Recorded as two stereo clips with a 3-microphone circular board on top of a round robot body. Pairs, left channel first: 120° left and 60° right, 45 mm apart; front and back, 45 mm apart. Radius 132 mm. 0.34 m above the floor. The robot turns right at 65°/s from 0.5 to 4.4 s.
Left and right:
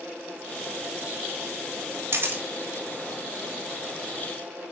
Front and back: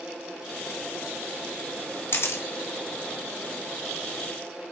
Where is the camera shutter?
30° right, 1.2 m; by 2.4 s 10° right, 1.2 m.